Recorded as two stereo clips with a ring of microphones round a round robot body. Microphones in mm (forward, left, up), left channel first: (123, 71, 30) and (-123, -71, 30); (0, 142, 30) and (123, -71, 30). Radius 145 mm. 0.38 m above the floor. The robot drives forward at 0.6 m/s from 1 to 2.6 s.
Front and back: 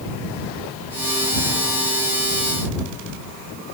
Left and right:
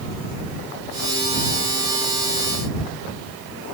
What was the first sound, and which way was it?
Only background noise.